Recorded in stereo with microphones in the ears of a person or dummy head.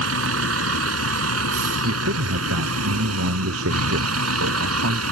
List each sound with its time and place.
0.0 s a vehicle: 80° right; by 5.1 s 85° right
1.8 s a man speaking: 80° right